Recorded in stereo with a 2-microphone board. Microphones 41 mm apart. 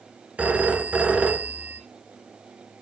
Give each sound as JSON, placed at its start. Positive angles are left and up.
{"t": 0.4, "sound": "a phone ringing", "side_deg": -40, "distance_m": 1.4}